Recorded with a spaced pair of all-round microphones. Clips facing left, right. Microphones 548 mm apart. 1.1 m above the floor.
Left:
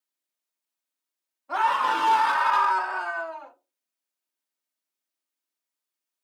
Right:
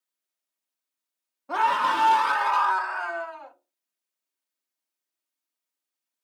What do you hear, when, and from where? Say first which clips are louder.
1.5 s a scream: right 1 dB; 60° right (ahead or behind), 0.8 m; by 3.5 s 65° left (ahead or behind), 1.8 m